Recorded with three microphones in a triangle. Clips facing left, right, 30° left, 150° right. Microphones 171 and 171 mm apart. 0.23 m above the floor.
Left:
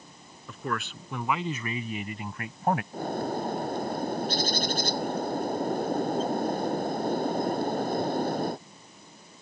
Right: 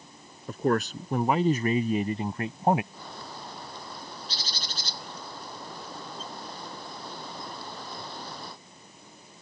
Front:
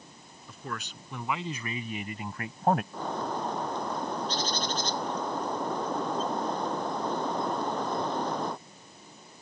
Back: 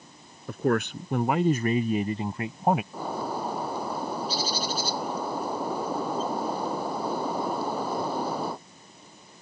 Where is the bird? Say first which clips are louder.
Left 13 dB, back 1 dB; 130° left.